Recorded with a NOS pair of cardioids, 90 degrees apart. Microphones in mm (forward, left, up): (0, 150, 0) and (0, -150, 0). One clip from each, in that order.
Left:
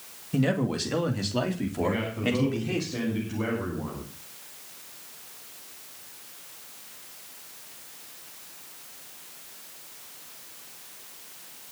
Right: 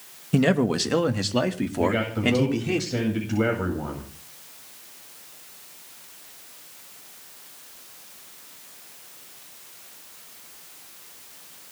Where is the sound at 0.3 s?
45° right, 2 m; by 2.8 s 35° right, 4.5 m.